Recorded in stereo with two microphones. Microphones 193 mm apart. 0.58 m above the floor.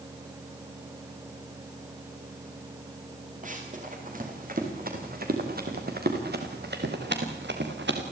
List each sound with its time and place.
3.4 s running footsteps: 45° right (ahead or behind), 6 m; by 8.0 s 70° right (ahead or behind), 4 m